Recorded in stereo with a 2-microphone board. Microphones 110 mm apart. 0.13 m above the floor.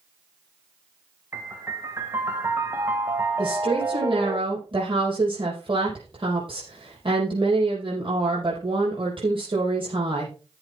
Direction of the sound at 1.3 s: 25° right (ahead or behind).